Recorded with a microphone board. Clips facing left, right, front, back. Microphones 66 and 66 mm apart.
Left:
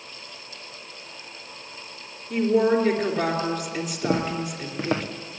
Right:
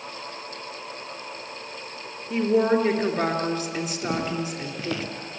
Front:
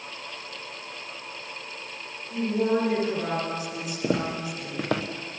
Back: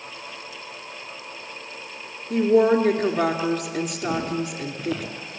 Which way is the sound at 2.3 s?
170° right.